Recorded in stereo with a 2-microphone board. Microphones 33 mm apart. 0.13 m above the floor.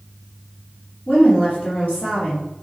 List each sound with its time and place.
1.1 s a woman speaking: 65° left (ahead or behind), 3 m